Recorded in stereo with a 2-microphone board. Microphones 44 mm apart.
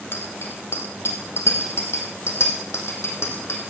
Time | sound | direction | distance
0.1 | a bicycle bell | 60° left (ahead or behind) | 2 m